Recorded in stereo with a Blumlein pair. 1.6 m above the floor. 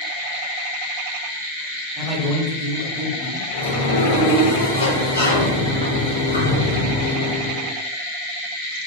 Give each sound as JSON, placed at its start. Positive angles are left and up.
{"t": 2.0, "sound": "a man speaking", "azimuth_deg": -30, "distance_m": 1.3}
{"t": 3.5, "sound": "a sliding door", "azimuth_deg": 70, "distance_m": 0.8}